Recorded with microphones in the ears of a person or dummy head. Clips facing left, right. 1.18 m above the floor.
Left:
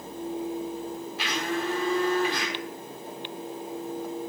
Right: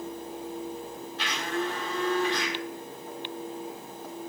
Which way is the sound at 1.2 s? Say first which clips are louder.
Left 1 dB; 15° left (ahead or behind).